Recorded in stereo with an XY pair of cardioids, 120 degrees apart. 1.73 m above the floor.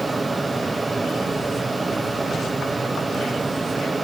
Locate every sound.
0.0 s a fan: 15° right, 1.7 m